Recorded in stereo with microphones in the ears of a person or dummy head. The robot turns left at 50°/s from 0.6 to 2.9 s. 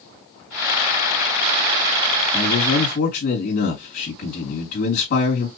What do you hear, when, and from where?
2.3 s a man speaking: 30° left (ahead or behind), 3 m; by 5.5 s 55° left (ahead or behind), 3 m